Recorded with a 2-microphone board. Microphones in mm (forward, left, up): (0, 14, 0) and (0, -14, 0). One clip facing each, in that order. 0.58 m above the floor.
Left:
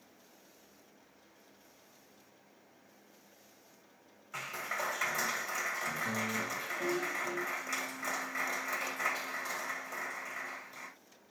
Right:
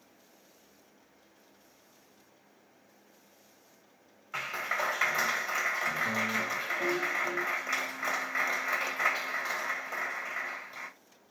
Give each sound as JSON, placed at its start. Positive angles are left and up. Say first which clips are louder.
{"t": 4.3, "sound": "a clap", "louder": "right 5 dB", "side_deg": -25, "distance_m": 2.0}